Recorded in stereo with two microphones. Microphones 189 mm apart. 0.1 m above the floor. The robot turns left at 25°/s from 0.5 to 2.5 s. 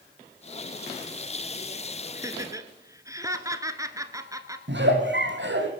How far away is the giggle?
About 2.5 m.